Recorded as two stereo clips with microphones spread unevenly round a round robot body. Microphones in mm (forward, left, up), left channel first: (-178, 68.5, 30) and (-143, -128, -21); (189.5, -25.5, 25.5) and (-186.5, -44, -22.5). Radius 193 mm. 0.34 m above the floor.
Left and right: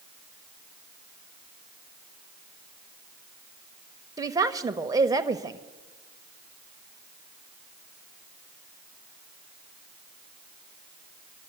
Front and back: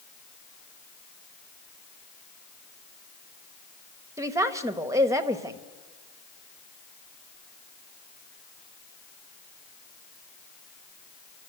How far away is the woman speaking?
About 1.1 m.